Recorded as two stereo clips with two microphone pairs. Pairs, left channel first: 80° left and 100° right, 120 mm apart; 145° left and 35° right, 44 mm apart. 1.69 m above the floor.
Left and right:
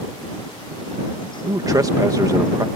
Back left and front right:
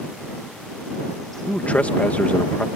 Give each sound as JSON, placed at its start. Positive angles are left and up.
{"t": 1.4, "sound": "a man speaking", "azimuth_deg": -160}